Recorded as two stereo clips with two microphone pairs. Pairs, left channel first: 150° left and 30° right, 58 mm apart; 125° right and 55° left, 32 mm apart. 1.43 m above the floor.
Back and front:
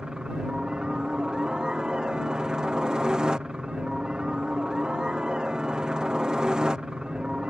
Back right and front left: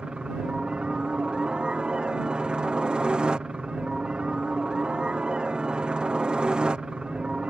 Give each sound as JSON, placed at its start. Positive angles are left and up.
{"t": 0.0, "sound": "a helicopter", "azimuth_deg": 30}